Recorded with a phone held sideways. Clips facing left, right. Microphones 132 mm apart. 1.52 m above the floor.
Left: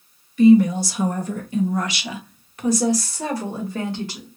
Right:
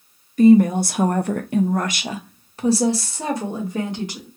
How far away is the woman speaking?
About 0.8 m.